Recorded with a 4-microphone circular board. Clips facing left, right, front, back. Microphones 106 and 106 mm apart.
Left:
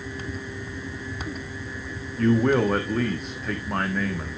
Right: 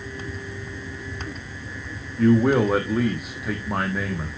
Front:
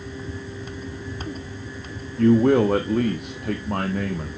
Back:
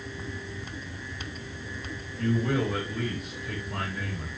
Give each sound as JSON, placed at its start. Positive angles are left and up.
{"t": 2.2, "sound": "a man speaking", "azimuth_deg": -10, "distance_m": 1.2}